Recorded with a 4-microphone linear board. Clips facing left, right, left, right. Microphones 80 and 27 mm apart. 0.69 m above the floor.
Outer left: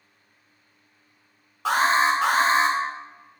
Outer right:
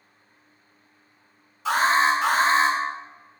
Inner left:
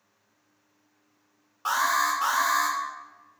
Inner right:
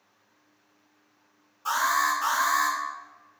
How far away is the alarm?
About 2 m.